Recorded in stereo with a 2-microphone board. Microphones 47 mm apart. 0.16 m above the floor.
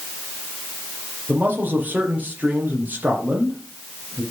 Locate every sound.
1.3 s a man speaking: 40° right (ahead or behind), 4.5 m